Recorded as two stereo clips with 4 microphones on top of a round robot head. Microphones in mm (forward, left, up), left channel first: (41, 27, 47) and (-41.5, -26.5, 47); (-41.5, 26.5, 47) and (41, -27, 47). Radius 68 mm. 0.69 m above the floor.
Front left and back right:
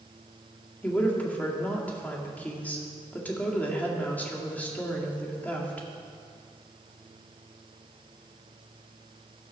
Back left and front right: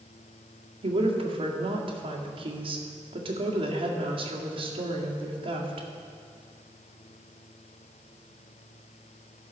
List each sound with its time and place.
0.8 s a woman speaking: 40° right, 2 m